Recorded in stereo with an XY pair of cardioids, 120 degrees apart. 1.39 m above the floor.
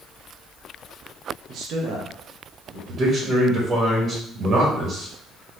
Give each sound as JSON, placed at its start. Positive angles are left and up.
{"t": 1.5, "sound": "a man speaking", "azimuth_deg": -70, "distance_m": 1.0}
{"t": 2.9, "sound": "a man speaking", "azimuth_deg": -55, "distance_m": 1.6}